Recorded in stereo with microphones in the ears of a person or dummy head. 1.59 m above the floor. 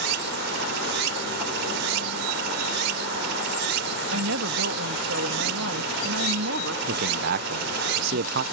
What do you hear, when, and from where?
0.0 s running water: 70° right (ahead or behind)
4.1 s a woman speaking: 85° right
6.9 s a man speaking: 55° right (ahead or behind)